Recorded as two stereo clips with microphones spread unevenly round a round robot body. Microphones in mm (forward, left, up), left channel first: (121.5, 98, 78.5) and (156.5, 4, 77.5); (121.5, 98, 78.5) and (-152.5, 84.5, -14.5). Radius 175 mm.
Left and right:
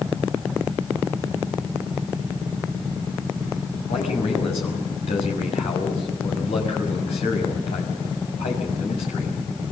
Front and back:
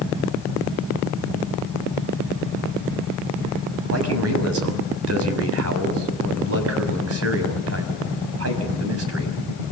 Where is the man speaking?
150° left, 5.5 m.